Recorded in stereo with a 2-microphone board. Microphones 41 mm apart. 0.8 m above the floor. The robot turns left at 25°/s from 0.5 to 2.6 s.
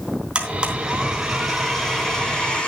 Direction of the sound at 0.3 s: 155° right.